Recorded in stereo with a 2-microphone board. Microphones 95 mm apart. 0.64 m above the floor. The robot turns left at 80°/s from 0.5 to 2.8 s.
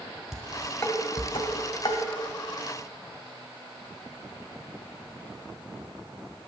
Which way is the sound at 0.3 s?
Centre (ahead or behind).